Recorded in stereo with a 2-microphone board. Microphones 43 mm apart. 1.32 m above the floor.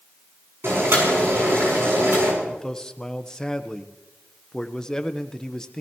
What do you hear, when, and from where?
0.6 s boiling: 75° right (ahead or behind), 7 m
2.4 s a man speaking: 15° left (ahead or behind), 0.9 m